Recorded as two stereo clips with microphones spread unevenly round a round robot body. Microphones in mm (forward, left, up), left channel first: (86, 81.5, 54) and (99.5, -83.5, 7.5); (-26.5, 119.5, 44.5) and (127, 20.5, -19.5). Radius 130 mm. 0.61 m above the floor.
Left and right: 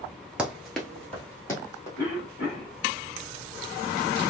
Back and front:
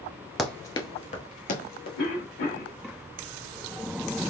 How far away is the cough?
About 2 m.